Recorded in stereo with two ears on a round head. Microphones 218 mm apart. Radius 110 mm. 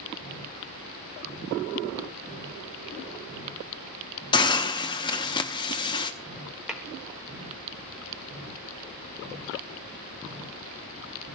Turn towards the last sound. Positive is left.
turn(degrees=-5)  # may be behind; listen again after turning